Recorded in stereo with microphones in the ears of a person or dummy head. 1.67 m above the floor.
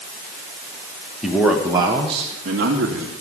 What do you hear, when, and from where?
1.2 s a man speaking: 5° right (ahead or behind), 1.7 m; by 3.1 s 55° right (ahead or behind), 2.5 m